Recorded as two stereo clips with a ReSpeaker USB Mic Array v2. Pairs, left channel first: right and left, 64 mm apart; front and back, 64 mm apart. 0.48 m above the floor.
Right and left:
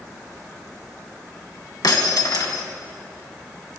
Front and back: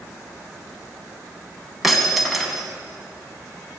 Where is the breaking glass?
90° right, 2.5 m.